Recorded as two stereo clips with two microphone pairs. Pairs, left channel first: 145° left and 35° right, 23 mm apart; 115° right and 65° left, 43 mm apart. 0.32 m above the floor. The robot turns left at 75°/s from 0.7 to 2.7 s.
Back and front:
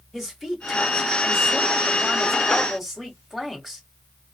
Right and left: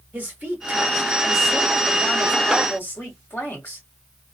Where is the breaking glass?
No breaking glass in this recording.